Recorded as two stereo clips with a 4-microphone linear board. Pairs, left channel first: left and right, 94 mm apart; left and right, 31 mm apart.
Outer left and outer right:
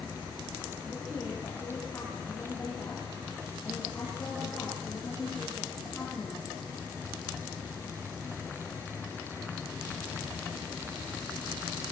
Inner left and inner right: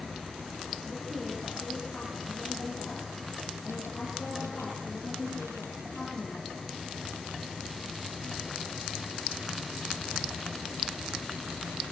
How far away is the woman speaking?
About 8 m.